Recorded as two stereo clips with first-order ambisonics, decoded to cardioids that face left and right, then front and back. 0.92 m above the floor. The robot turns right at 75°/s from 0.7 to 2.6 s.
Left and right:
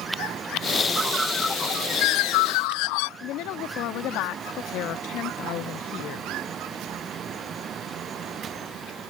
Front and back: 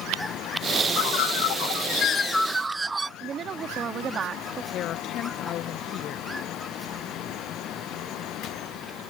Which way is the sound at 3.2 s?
120° left.